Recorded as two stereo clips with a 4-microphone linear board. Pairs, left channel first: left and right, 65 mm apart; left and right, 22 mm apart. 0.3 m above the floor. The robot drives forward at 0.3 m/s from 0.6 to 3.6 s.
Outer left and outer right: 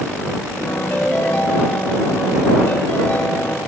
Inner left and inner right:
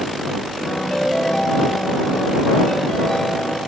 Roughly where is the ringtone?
Left.